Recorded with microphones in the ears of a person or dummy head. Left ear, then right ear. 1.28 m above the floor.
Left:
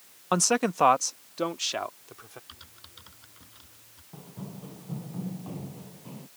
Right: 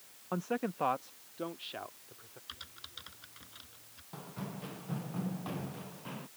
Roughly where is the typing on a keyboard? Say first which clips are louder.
Right 2 dB; right.